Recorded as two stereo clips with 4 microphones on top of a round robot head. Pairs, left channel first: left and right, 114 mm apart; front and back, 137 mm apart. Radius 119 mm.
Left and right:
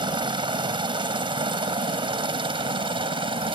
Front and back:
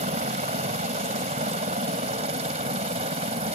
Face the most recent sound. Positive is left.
turn(degrees=-130)